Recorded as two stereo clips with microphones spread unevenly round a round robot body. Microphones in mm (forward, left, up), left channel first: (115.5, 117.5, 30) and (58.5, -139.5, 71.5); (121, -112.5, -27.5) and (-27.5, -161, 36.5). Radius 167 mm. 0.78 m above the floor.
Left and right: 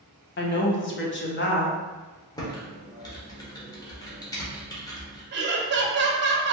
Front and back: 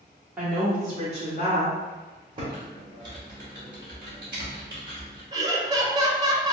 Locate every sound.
0.4 s a woman speaking: 95° left, 0.6 m; by 1.8 s 30° left, 1.0 m
2.4 s typing on a keyboard: 120° left, 0.7 m
5.3 s laughter: 75° right, 0.6 m